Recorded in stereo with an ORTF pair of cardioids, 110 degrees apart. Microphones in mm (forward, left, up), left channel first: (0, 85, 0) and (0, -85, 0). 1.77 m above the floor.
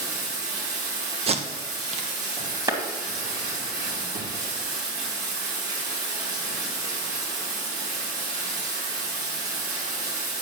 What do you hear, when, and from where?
0.0 s running water: 70° right, 4 m
1.3 s tape being pulled: 35° right, 1.2 m
2.7 s a clap: 25° right, 2 m